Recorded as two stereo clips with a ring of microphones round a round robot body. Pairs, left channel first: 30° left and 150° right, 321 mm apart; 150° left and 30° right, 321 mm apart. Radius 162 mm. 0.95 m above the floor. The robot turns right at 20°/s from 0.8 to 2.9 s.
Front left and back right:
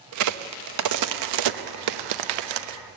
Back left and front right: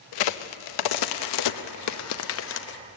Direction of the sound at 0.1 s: 170° left.